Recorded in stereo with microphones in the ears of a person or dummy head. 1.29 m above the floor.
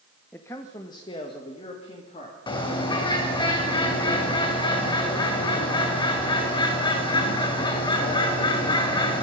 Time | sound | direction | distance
0.3 | a man speaking | 10° left (ahead or behind) | 0.9 m
2.5 | a bird | 30° left (ahead or behind) | 3 m